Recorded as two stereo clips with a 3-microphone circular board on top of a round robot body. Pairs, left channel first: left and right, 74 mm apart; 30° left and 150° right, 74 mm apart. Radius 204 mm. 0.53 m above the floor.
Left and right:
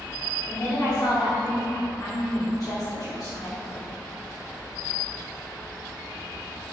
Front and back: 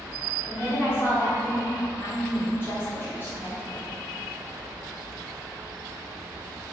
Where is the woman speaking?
85° left, 1.4 m.